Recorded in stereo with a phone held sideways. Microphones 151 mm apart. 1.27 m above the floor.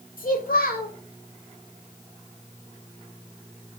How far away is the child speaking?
About 2.5 m.